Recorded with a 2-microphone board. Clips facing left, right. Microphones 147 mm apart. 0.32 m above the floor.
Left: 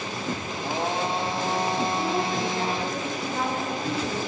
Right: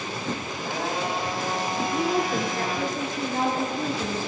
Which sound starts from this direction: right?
A woman speaking, at 1.9 s.